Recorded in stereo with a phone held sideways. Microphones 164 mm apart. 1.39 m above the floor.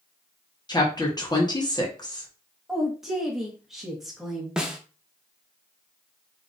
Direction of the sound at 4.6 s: 5° right (ahead or behind).